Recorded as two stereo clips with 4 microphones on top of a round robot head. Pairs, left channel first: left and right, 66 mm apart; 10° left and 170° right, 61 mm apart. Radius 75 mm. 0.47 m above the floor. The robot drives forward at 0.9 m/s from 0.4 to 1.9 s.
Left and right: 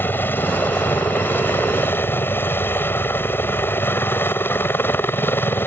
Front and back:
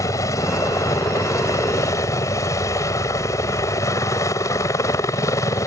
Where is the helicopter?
35° left.